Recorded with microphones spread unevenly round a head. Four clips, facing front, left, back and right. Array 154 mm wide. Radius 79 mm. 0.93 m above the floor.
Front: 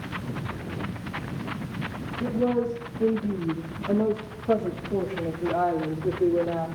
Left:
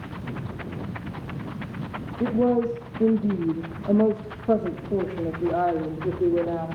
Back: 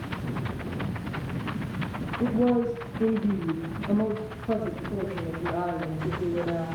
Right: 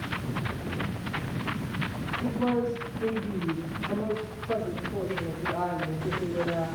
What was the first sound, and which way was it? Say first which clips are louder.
A woman speaking: left 6 dB, back 1 dB; 110° left.